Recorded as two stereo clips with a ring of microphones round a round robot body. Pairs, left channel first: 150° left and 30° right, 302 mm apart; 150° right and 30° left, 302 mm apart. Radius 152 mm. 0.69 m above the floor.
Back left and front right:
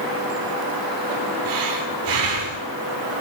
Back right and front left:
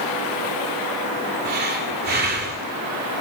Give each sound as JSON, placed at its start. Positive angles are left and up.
{"t": 1.4, "sound": "breathing", "azimuth_deg": -30, "distance_m": 2.0}